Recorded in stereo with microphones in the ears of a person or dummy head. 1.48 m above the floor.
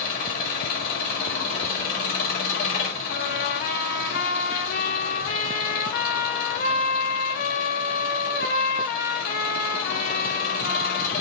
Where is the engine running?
45° left (ahead or behind), 1.6 m.